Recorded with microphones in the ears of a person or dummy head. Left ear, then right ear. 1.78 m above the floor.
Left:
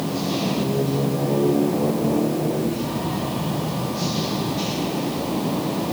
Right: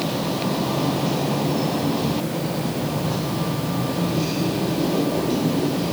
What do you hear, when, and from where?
Only background noise.